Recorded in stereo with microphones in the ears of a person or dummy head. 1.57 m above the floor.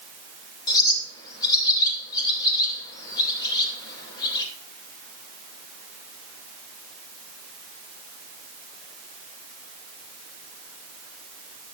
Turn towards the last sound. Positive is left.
turn(degrees=25)  # may be behind; listen again after turning